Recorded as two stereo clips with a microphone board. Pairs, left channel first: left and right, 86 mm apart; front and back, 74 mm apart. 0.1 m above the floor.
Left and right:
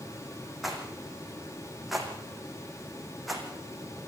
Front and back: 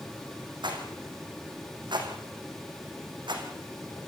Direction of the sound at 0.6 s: Straight behind.